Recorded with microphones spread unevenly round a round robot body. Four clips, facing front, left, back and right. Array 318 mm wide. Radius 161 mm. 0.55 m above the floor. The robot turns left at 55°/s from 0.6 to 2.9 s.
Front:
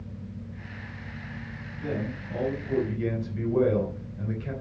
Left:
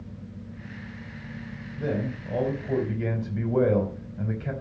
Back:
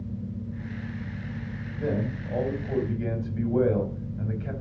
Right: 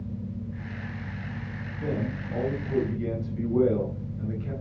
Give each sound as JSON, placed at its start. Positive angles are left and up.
{"t": 1.8, "sound": "a man speaking", "azimuth_deg": 140, "distance_m": 3.5}